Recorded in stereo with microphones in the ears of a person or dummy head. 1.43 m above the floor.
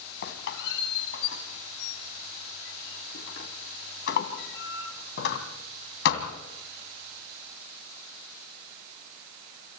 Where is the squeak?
60° left (ahead or behind), 2.5 m.